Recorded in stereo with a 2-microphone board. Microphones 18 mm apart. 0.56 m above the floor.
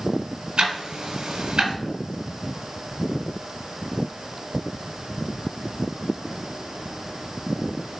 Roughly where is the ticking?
Right.